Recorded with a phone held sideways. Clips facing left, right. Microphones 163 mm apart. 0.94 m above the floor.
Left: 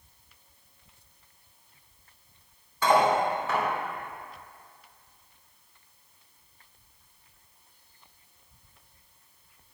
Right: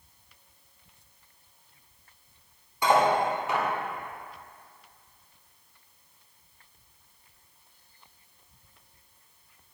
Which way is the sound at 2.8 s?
15° right (ahead or behind).